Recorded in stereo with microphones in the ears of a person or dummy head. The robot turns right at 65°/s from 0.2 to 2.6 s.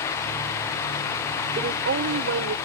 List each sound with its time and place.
1.6 s a woman speaking: 150° right; by 2.5 s 85° right